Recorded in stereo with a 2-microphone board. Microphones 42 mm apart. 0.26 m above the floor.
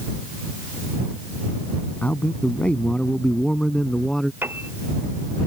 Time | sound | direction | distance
2.0 | a man speaking | 40° left (ahead or behind) | ?
4.4 | a piano | 60° right (ahead or behind) | ?